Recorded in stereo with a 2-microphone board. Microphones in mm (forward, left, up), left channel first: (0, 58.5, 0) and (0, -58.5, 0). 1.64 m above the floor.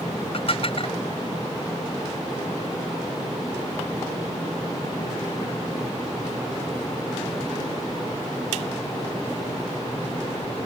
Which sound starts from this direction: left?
Dishes clattering, at 0.3 s.